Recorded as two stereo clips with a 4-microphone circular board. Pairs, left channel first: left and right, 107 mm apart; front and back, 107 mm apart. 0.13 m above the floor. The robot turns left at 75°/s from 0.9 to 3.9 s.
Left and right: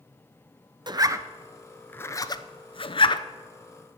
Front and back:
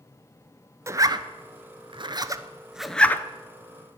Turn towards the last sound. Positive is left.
turn(degrees=10)